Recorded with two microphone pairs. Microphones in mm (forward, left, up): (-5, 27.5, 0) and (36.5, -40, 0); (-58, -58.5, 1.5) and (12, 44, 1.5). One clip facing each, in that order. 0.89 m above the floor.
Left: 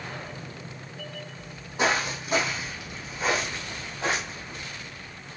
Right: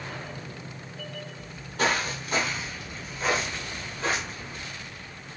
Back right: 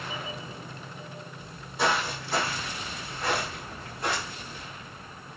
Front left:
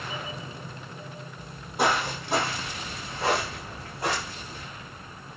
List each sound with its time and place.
1.4 s footsteps: 50° left, 1.3 m